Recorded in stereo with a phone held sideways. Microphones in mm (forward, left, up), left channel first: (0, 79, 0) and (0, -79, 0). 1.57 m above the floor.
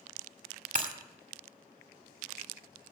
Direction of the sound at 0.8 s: 55° right (ahead or behind).